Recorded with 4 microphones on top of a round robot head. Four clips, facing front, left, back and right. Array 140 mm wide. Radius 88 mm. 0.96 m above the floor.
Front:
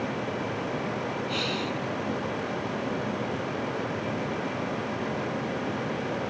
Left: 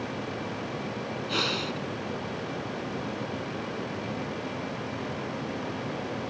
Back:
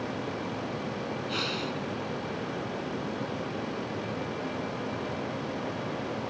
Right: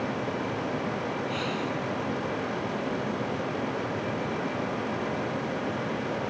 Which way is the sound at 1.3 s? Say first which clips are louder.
Right 1 dB, front 3 dB; 85° left.